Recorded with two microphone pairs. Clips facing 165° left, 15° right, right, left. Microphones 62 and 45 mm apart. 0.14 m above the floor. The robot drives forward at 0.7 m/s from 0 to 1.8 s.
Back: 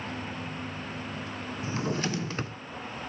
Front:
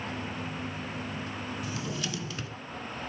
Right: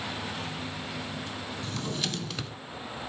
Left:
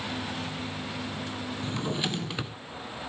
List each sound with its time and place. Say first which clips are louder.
1.6 s a drawer: back 4 dB, left 3 dB; 130° left, 0.5 m; by 2.6 s 145° left, 0.6 m